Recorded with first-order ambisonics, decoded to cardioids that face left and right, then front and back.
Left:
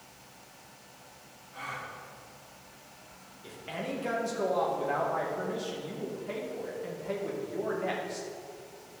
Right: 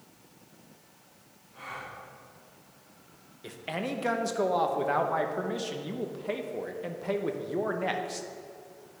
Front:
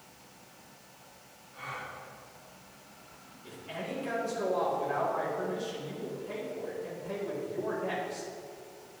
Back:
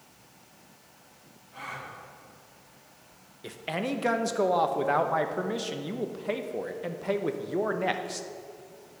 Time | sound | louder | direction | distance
1.5 | a gasp | left 2 dB, back 1 dB | 155° left | 2 m
3.4 | a man speaking | right 3 dB, back 7 dB | 155° right | 0.8 m